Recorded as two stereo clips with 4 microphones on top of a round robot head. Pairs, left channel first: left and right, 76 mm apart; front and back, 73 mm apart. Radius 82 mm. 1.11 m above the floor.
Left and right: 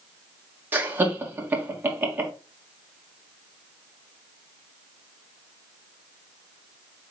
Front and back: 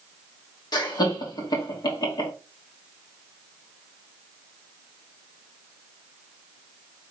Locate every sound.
0.7 s laughter: 25° right, 1.8 m